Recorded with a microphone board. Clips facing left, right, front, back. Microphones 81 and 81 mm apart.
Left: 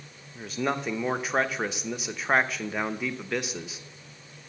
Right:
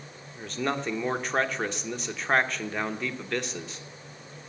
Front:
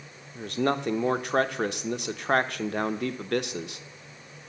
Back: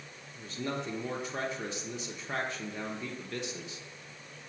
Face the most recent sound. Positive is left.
turn(degrees=5)